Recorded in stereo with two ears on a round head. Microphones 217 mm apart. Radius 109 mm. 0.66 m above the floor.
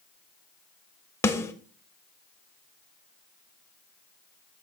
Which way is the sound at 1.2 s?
10° left (ahead or behind).